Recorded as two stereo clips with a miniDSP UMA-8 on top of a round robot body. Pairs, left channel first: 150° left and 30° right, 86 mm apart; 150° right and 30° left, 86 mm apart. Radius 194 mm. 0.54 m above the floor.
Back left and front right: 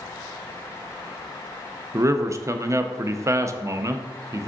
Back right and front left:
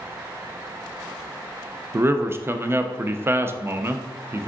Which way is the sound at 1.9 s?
10° right.